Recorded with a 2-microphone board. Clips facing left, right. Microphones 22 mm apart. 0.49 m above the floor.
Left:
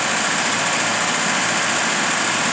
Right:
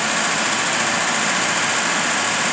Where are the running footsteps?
I don't hear running footsteps.